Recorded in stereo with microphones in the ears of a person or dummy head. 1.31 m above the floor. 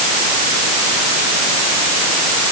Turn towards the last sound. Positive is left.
No sound to turn to.